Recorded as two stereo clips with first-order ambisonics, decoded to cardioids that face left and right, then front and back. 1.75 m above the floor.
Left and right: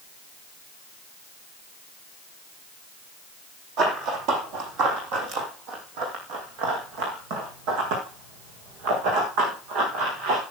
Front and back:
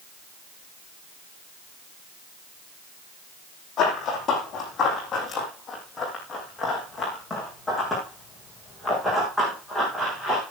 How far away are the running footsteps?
About 4 m.